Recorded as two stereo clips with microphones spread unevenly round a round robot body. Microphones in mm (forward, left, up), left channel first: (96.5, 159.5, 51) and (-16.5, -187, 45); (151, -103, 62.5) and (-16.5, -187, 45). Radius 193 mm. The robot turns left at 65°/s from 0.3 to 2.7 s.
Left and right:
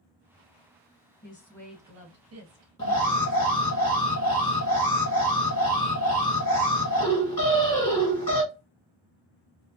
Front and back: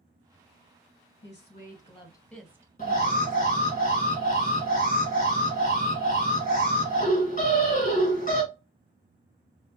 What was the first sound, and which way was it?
A woman speaking, 10° left.